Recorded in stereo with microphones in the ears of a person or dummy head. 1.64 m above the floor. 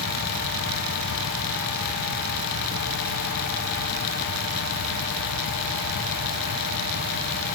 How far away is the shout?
No shout in this recording.